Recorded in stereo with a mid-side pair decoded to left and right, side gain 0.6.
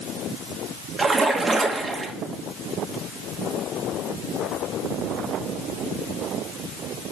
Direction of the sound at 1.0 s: 25° right.